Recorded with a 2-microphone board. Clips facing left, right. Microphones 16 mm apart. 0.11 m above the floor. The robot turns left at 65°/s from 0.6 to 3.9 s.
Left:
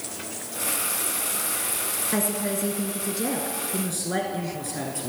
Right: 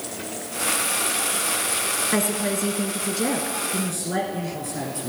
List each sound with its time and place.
2.1 s a woman speaking: 20° right (ahead or behind), 1.1 m; by 3.6 s 15° right (ahead or behind), 1.1 m
3.7 s a man speaking: 15° left (ahead or behind), 1.3 m; by 5.1 s 10° left (ahead or behind), 1.3 m